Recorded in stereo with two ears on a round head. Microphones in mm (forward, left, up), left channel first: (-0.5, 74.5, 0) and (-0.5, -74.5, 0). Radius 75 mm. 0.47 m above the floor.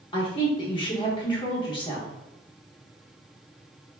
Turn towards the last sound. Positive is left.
turn(degrees=30)  # may be behind; listen again after turning